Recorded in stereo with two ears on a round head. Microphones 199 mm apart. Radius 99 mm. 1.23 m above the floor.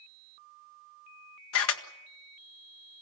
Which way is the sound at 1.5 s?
70° left (ahead or behind).